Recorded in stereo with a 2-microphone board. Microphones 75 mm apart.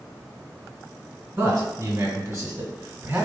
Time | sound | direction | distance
1.4 | a man speaking | 35° right (ahead or behind) | 1.3 m